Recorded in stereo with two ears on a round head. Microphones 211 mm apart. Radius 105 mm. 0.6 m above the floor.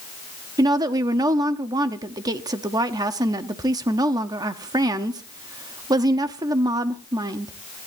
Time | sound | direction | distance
0.6 | a woman speaking | 15° right (ahead or behind) | 0.9 m